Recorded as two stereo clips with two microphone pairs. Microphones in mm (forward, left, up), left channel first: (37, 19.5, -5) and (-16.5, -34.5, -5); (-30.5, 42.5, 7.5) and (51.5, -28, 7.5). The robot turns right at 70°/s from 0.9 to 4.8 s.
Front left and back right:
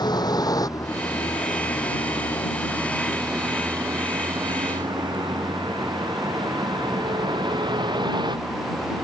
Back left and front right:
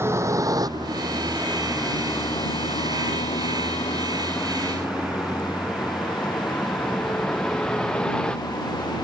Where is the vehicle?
25° left; by 9.0 s 140° right.